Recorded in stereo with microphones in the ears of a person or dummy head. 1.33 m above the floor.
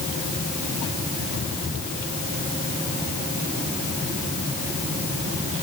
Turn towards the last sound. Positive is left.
No sound to turn to.